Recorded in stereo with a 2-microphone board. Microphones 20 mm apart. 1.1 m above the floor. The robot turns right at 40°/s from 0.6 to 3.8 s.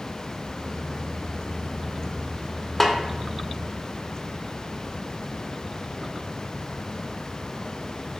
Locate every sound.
2.8 s a snare drum: 15° left (ahead or behind), 0.6 m; by 3.0 s 20° left (ahead or behind), 0.6 m